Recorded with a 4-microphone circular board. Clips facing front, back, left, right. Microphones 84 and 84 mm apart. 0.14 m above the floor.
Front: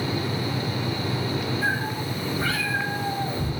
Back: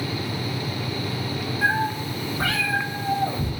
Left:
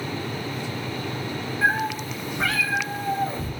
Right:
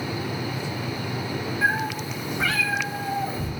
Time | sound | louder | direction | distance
1.6 | a cat meowing | back 3 dB, left 2 dB | straight behind | 7 m